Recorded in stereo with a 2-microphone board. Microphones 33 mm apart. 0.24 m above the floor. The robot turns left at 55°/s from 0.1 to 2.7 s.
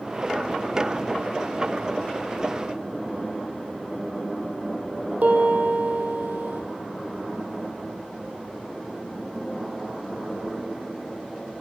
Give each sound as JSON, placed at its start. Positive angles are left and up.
{"t": 5.2, "sound": "a piano", "side_deg": -60, "distance_m": 5.0}